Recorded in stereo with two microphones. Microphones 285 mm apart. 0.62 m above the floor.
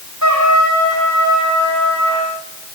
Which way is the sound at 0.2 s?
85° right.